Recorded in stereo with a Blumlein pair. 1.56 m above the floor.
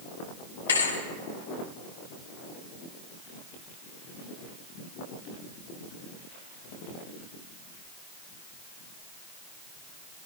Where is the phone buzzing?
No phone buzzing in this recording.